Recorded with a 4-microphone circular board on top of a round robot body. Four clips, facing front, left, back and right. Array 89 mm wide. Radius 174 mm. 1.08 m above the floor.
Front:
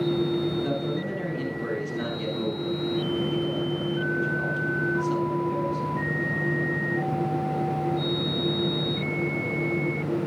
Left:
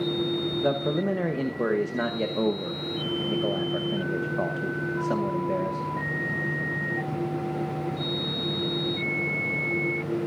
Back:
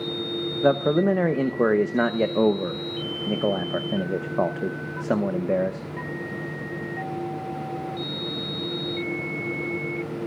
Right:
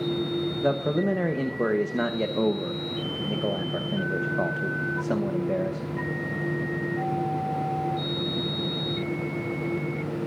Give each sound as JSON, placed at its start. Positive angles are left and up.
{"t": 0.6, "sound": "a man speaking", "azimuth_deg": 180, "distance_m": 0.9}